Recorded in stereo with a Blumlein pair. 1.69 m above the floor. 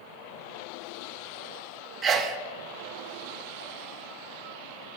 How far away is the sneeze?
About 0.7 m.